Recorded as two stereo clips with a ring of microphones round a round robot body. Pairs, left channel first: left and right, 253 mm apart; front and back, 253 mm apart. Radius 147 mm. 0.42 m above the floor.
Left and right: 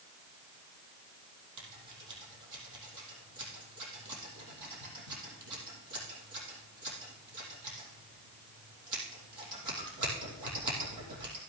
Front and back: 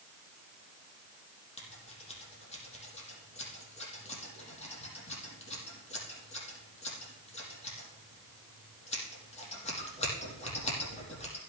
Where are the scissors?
65° right, 4.5 m.